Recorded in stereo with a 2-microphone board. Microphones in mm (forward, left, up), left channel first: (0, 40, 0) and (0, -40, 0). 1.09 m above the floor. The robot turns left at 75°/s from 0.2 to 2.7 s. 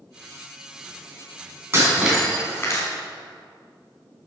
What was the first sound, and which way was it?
Breaking glass, 145° right.